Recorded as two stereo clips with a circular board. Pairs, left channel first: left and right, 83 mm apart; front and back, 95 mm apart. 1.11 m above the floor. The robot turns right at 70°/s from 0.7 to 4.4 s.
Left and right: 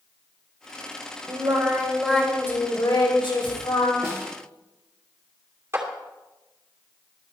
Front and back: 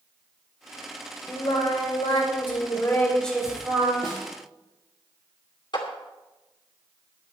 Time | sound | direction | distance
1.3 | singing | 55° right | 3 m
4.0 | a snare drum | 150° right | 2.5 m
5.7 | a clap | 35° right | 2.5 m